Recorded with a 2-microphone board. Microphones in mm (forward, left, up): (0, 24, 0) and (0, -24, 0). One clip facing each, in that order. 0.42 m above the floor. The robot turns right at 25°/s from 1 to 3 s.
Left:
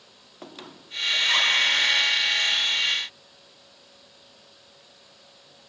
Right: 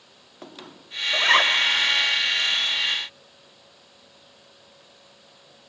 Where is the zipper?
50° right (ahead or behind), 1.3 m; by 1.6 s 45° right (ahead or behind), 1.3 m.